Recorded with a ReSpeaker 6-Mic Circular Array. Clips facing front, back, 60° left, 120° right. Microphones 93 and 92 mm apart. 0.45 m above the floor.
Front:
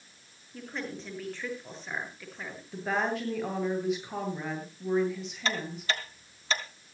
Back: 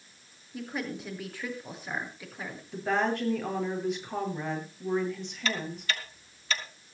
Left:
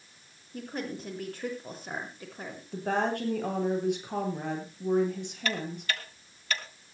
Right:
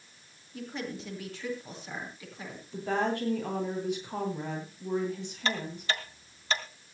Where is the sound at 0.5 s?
100° left, 8 m.